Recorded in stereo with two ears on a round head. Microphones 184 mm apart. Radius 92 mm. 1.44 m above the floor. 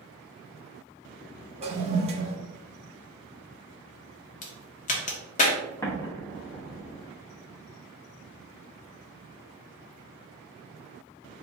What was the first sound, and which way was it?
A toilet flushing, 30° right (ahead or behind).